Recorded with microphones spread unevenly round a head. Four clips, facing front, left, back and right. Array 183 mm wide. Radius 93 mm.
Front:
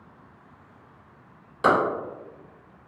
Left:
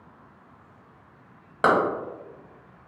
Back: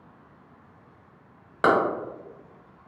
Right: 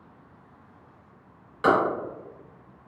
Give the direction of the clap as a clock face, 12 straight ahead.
8 o'clock.